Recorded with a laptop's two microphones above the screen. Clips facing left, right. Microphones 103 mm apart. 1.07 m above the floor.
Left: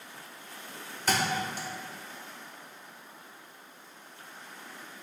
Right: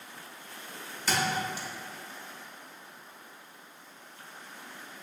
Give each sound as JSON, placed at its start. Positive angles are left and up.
{"t": 1.1, "sound": "a thud", "side_deg": 50, "distance_m": 0.7}